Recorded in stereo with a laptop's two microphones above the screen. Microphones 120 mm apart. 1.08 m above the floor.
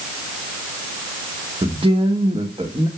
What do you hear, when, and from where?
1.6 s a man speaking: 45° right (ahead or behind), 1.2 m